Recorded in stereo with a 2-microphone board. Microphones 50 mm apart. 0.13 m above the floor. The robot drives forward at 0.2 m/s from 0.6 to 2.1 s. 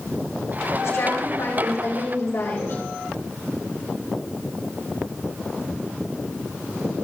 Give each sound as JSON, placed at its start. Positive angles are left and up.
{"t": 0.8, "sound": "a woman speaking", "side_deg": 65, "distance_m": 6.5}